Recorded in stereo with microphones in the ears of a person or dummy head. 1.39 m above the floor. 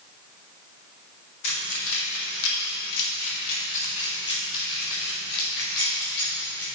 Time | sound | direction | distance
1.4 | keys jangling | 65° left (ahead or behind) | 2 m